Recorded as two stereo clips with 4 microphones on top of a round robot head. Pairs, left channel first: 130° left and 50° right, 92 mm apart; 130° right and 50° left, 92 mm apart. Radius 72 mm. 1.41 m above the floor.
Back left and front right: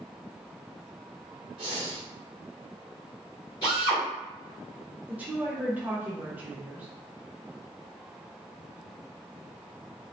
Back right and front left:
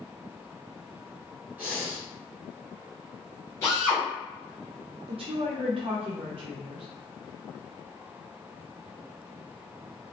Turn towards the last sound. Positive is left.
turn(degrees=20)